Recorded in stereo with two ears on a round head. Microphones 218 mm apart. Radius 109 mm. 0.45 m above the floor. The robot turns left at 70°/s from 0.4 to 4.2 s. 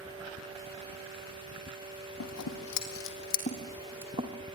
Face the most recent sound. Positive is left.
turn(degrees=-20)  # may be behind; listen again after turning